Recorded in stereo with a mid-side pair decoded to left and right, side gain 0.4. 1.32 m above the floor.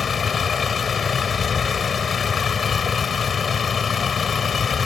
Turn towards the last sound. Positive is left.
turn(degrees=55)